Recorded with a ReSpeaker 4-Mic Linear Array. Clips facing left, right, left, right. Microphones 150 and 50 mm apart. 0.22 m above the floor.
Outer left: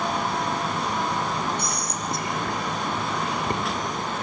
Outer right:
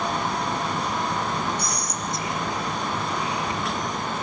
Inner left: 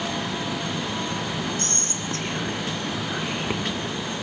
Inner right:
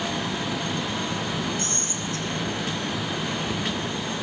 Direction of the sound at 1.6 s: 55° left (ahead or behind).